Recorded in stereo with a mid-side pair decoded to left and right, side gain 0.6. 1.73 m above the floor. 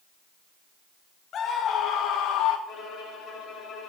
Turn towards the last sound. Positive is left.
turn(degrees=45)